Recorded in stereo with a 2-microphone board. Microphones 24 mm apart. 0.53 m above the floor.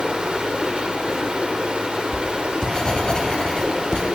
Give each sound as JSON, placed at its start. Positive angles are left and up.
{"t": 0.0, "sound": "running water", "side_deg": -55, "distance_m": 1.4}
{"t": 2.1, "sound": "writing", "side_deg": 40, "distance_m": 1.9}